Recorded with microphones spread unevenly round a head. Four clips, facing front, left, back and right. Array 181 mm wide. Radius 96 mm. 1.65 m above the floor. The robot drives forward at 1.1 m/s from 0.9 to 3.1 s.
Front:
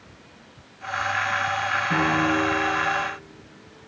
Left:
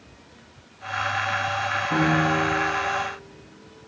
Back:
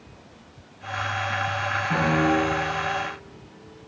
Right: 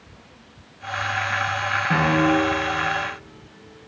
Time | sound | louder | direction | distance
1.9 | a piano | right 3 dB, back 1 dB | 70° right | 8.5 m